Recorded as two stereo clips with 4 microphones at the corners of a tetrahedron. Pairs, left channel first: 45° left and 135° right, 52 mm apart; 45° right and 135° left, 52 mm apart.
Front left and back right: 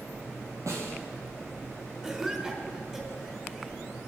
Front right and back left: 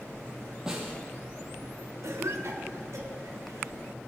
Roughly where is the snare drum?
Behind right.